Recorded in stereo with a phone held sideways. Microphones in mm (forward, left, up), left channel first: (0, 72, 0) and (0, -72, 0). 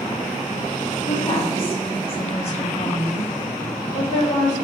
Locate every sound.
1.1 s a woman speaking: 35° left (ahead or behind), 1.0 m; by 4.5 s 50° left (ahead or behind), 3 m